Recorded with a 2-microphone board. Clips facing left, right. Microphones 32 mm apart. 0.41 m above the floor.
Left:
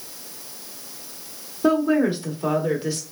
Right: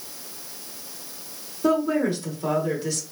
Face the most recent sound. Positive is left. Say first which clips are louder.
# left 3 dB
turn(degrees=20)  # may be behind; listen again after turning